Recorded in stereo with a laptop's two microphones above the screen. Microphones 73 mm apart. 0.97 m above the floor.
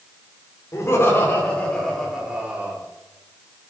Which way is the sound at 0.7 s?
40° left (ahead or behind).